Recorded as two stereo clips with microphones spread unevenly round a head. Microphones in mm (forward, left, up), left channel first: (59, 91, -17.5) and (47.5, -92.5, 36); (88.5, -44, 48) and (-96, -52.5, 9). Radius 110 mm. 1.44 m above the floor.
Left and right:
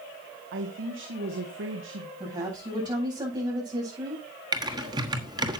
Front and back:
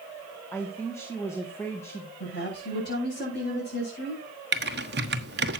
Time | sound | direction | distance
0.5 | a man speaking | 75° right | 2 m
2.2 | a woman speaking | 30° right | 8 m
4.5 | typing on a keyboard | 150° right | 1.2 m